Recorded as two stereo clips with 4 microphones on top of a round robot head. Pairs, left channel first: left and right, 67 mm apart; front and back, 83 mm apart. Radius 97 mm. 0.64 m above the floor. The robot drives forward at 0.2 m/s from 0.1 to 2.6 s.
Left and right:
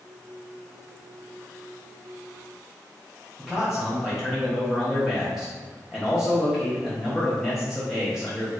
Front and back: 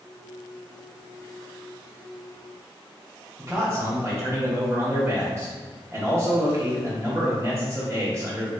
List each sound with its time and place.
3.4 s a man speaking: 170° right, 1.0 m